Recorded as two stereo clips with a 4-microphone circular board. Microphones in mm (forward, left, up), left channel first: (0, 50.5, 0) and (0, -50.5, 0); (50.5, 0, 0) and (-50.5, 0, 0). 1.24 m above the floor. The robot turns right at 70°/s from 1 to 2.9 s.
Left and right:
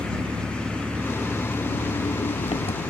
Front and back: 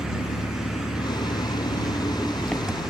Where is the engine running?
20° right; by 2.9 s 110° left.